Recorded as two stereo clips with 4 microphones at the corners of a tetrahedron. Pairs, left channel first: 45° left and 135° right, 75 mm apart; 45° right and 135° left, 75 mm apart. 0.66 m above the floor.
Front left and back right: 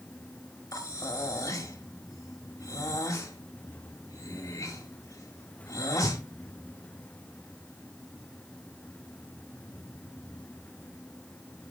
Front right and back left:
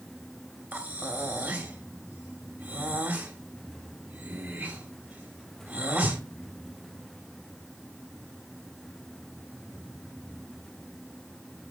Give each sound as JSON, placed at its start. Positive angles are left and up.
{"t": 0.7, "sound": "breathing", "azimuth_deg": 75, "distance_m": 1.7}